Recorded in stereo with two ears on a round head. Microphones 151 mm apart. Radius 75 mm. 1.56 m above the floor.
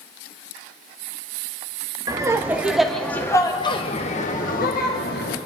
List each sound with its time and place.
2.1 s laughter: 20° right (ahead or behind), 1.4 m; by 5.4 s 65° left (ahead or behind), 1.8 m